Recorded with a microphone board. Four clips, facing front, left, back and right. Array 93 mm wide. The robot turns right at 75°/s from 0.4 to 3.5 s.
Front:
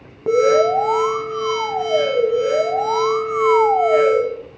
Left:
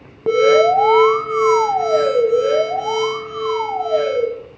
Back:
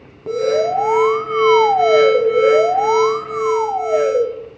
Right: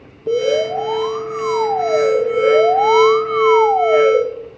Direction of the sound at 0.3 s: 70° left.